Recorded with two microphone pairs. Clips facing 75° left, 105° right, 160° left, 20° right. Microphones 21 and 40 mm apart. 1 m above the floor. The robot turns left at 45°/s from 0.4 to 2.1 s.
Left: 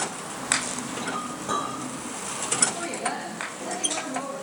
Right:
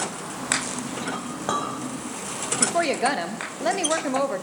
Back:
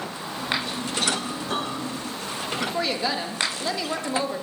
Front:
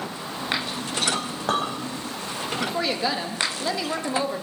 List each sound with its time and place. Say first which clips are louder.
1.1 s a clink: right 1 dB, front 3 dB; 35° right, 3 m; by 1.7 s 60° right, 3 m
2.6 s a woman speaking: right 9 dB, front 1 dB; 105° right, 1.0 m